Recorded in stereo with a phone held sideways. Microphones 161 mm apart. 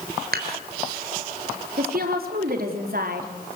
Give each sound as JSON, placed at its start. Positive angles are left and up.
{"t": 0.3, "sound": "dishes clattering", "side_deg": -70, "distance_m": 3.5}
{"t": 1.8, "sound": "a woman speaking", "side_deg": -65, "distance_m": 4.0}